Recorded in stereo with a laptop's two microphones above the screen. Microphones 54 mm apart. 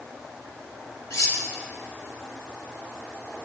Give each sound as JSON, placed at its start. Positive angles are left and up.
{"t": 1.1, "sound": "cutlery clinking", "side_deg": 70, "distance_m": 0.9}